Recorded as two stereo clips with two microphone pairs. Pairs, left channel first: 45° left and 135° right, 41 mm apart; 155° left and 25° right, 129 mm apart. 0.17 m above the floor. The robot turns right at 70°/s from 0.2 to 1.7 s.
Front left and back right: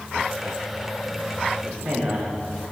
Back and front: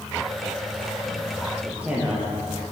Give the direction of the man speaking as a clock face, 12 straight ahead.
4 o'clock.